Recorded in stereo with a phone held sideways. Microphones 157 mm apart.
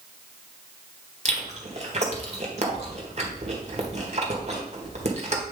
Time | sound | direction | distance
1.2 | chewing | 45° right (ahead or behind) | 1.6 m